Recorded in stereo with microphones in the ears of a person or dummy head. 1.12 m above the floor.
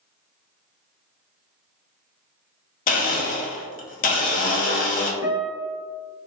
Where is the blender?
45° left (ahead or behind), 0.6 m.